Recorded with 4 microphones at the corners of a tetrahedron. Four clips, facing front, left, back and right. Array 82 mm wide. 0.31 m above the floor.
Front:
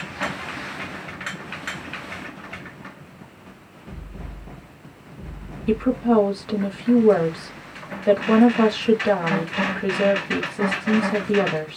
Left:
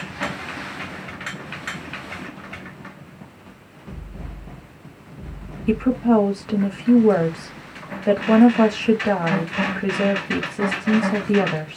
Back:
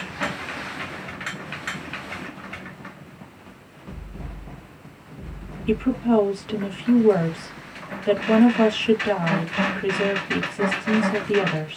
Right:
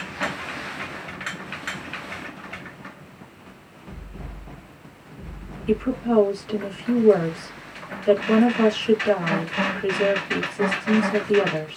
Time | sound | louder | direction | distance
5.7 | a woman speaking | left 4 dB, front 1 dB | 70° left | 1.0 m